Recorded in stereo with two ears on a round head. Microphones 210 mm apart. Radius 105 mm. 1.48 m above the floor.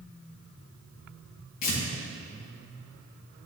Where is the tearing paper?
80° left, 2 m.